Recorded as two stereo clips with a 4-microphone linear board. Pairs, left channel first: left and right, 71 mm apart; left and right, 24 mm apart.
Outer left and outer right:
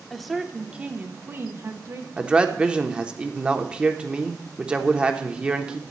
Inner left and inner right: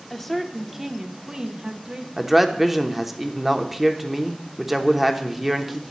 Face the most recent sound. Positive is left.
turn(degrees=-15)  # may be behind; listen again after turning